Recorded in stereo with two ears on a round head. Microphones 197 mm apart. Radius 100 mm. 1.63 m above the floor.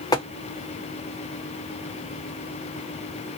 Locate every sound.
0.1 s tapping: 20° left (ahead or behind), 1.2 m